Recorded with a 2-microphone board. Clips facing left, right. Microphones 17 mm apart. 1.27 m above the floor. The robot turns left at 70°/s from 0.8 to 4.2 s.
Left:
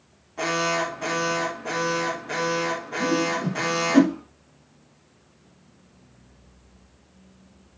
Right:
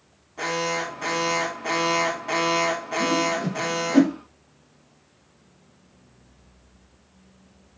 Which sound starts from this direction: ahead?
An alarm, at 0.4 s.